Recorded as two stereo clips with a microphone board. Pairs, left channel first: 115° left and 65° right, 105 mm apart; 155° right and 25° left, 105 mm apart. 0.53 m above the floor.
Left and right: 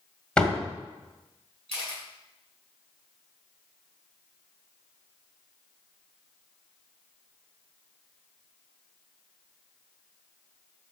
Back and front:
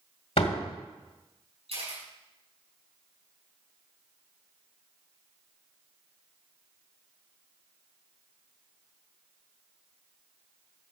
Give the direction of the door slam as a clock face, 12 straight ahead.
6 o'clock.